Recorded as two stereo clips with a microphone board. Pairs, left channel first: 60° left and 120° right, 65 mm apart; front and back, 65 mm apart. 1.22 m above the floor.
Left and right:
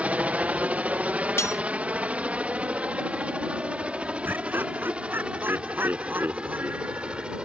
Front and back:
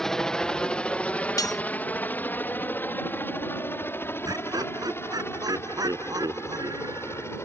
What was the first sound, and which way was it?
A helicopter, 75° right.